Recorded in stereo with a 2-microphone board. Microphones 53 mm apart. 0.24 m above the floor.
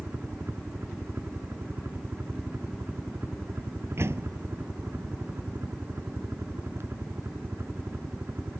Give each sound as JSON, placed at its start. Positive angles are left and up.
{"t": 0.0, "sound": "a helicopter", "side_deg": -55}
{"t": 4.0, "sound": "a door slam", "side_deg": -55}